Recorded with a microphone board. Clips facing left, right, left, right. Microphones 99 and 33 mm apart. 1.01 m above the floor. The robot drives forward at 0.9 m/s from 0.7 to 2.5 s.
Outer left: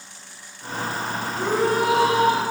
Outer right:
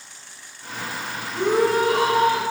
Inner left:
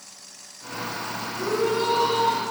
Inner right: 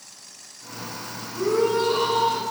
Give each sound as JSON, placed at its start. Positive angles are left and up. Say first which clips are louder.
{"t": 1.3, "sound": "a shout", "louder": "outer right 3 dB, inner right 3 dB", "side_deg": -65, "distance_m": 4.5}